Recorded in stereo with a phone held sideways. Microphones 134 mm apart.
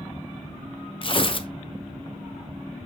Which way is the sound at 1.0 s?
40° left (ahead or behind).